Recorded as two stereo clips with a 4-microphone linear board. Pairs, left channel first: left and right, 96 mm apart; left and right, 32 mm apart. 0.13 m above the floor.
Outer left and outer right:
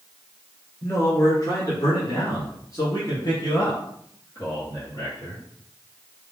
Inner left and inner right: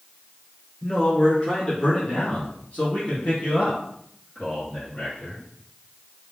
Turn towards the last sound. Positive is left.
turn(degrees=35)  # may be behind; listen again after turning